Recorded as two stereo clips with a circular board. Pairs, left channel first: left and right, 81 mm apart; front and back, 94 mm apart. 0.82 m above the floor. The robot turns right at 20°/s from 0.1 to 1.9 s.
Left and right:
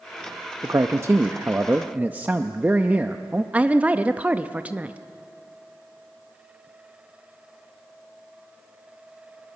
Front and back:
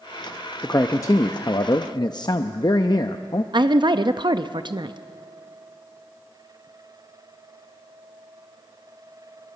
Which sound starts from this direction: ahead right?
A man speaking, at 0.6 s.